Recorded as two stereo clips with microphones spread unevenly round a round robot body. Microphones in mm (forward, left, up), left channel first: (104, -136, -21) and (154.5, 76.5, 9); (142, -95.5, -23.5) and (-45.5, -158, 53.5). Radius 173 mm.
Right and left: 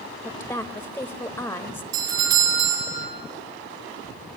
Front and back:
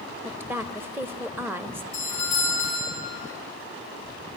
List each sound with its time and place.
0.2 s a woman speaking: 50° right, 0.9 m
1.9 s a doorbell: 100° left, 5.5 m